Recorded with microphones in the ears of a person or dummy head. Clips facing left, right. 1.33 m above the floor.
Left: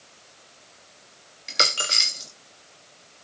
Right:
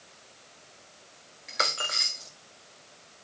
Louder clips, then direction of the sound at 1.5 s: Left 4 dB; 25° left (ahead or behind).